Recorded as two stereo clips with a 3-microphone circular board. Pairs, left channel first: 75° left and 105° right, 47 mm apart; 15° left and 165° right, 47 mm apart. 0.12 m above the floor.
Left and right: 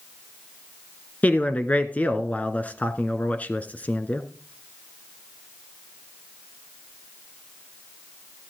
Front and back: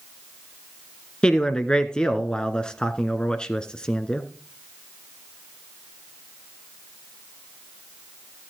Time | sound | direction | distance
1.2 | a man speaking | 70° left | 1.2 m